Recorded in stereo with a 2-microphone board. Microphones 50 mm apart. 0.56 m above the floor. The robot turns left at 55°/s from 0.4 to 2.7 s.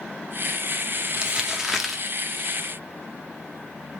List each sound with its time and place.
1.1 s crumpling: 20° right (ahead or behind), 0.6 m; by 2.0 s centre (ahead or behind), 0.6 m